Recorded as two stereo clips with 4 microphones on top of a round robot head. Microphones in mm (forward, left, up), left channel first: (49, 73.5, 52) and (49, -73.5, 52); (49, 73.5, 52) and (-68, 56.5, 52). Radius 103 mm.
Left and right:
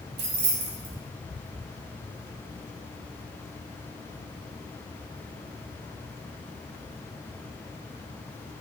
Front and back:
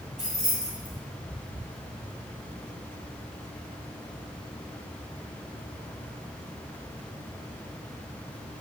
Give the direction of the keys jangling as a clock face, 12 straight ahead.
3 o'clock.